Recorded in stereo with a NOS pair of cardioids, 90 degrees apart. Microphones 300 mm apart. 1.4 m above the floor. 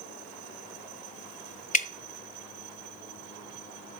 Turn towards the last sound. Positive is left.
turn(degrees=25)